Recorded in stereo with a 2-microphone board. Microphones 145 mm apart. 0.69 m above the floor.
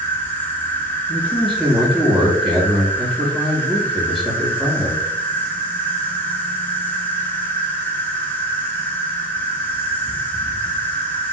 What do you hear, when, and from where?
0.0 s an insect: 10° left (ahead or behind), 0.7 m
1.1 s a man speaking: centre (ahead or behind), 1.2 m